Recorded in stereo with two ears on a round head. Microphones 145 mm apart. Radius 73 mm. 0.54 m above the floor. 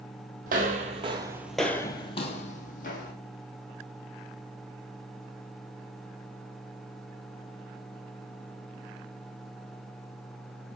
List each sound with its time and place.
0.5 s footsteps: 55° right (ahead or behind), 0.9 m; by 3.1 s 60° left (ahead or behind), 1.3 m